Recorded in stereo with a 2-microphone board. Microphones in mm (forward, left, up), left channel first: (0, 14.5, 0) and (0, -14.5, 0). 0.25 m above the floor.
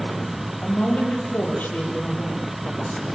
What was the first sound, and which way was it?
A woman speaking, 80° left.